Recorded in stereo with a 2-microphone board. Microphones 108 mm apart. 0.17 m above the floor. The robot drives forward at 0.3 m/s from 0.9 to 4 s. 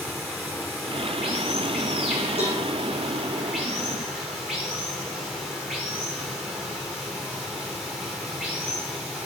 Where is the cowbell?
65° left (ahead or behind), 4.5 m.